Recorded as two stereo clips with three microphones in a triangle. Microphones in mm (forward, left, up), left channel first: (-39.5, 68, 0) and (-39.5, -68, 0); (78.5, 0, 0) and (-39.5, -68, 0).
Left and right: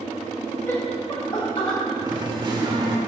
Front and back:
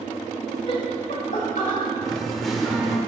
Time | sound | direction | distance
0.7 | laughter | 25° left | 1.6 m
2.0 | singing | 60° right | 1.2 m